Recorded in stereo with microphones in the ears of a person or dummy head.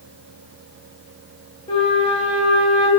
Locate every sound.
1.7 s a flute: 30° left (ahead or behind), 1.5 m